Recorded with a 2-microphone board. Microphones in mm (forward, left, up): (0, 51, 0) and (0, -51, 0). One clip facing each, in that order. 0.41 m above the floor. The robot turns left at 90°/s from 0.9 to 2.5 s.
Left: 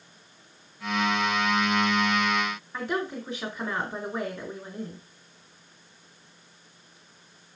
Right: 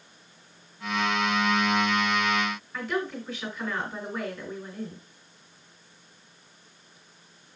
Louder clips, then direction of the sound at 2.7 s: Left 1 dB; 30° left (ahead or behind).